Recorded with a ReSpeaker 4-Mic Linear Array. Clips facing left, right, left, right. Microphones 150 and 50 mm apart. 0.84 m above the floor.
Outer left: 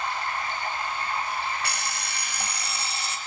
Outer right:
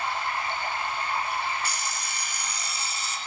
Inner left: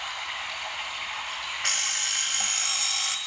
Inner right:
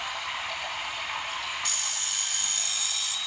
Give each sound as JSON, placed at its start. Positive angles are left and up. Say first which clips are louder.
{"t": 0.0, "sound": "running water", "louder": "even, inner right 1 dB", "side_deg": -70, "distance_m": 4.5}
{"t": 1.6, "sound": "an alarm clock", "louder": "outer left 1 dB, inner left 4 dB", "side_deg": 85, "distance_m": 1.1}